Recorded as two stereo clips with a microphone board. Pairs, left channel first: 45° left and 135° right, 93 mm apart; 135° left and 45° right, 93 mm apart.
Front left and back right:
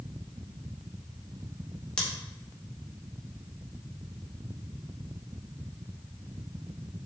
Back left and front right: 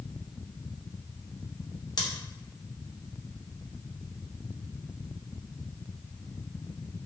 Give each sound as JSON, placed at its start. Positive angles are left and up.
{"t": 2.0, "sound": "scissors", "azimuth_deg": 125, "distance_m": 0.9}